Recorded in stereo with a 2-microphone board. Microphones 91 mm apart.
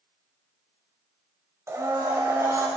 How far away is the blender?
About 1.5 m.